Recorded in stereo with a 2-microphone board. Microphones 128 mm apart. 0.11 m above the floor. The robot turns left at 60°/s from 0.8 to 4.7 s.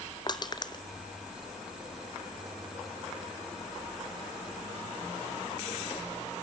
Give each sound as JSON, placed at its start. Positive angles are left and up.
{"t": 0.3, "sound": "crushing", "side_deg": 35, "distance_m": 1.0}